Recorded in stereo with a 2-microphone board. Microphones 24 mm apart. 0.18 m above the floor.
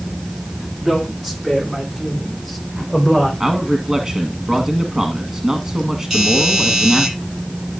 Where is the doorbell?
25° right (ahead or behind), 7.5 m.